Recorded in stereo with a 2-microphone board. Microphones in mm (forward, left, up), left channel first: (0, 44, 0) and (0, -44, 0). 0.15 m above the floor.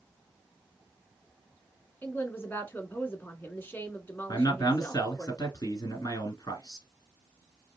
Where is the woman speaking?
25° left (ahead or behind), 1.3 m.